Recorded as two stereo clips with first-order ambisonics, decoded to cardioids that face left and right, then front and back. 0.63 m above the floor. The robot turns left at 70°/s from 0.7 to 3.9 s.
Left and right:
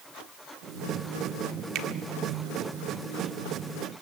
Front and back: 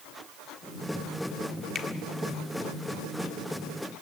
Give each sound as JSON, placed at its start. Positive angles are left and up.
{"t": 1.8, "sound": "a finger snap", "azimuth_deg": -60, "distance_m": 1.4}